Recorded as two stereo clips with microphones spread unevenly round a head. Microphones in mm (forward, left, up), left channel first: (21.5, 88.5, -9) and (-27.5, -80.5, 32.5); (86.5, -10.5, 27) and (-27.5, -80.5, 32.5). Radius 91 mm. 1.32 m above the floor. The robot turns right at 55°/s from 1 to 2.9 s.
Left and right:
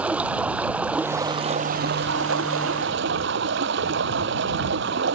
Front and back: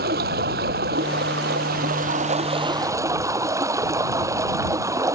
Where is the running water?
175° left; by 5.2 s 85° right.